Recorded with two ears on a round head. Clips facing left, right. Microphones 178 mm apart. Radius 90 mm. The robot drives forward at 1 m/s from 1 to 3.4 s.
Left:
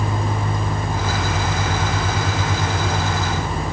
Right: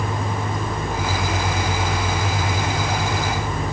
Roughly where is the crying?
No crying in this recording.